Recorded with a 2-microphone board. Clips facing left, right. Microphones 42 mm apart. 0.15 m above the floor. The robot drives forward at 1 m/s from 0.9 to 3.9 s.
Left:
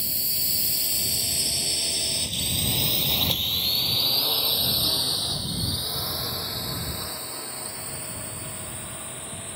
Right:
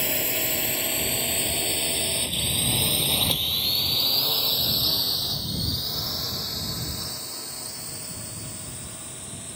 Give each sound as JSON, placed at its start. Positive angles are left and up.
{"t": 0.0, "sound": "a drone", "side_deg": -55}